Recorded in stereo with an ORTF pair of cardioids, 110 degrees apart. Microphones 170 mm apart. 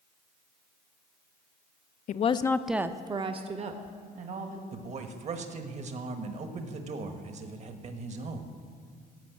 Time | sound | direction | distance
2.1 | a woman speaking | 50° left | 0.6 m
4.7 | a man speaking | 40° right | 1.3 m